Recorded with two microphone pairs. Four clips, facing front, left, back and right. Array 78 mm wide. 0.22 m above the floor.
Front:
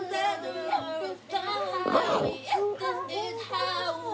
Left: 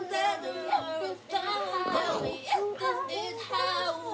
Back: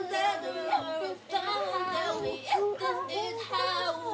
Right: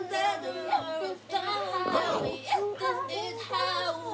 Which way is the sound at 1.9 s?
10° right.